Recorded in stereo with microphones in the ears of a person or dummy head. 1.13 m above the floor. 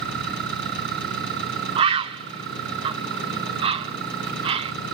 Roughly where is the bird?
Right.